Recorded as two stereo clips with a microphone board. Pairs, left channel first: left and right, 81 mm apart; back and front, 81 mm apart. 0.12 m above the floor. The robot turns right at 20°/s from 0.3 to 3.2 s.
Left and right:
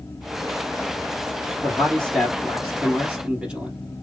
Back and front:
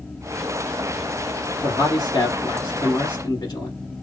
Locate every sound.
1.6 s a man speaking: 170° left, 2 m; by 3.8 s 160° right, 2 m